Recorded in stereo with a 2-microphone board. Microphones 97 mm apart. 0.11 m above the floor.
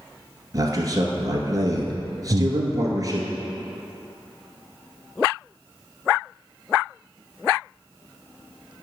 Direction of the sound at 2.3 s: 50° right (ahead or behind).